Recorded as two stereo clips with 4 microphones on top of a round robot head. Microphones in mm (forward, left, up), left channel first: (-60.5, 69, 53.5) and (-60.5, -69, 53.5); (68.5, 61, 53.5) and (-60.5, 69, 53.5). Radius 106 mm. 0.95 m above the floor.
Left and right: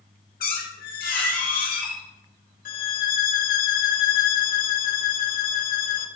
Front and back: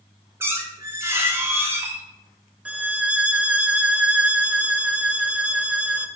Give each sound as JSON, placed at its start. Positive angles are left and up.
{"t": 0.4, "sound": "a squeak", "azimuth_deg": 105, "distance_m": 1.8}
{"t": 2.6, "sound": "a violin", "azimuth_deg": 95, "distance_m": 0.8}